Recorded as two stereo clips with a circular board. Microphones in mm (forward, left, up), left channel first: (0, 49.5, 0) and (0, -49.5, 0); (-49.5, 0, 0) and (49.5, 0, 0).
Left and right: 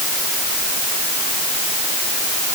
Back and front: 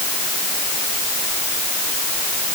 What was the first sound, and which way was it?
Only background noise.